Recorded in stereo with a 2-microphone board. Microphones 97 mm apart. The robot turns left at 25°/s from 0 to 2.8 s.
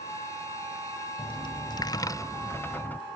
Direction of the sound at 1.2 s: 60° left.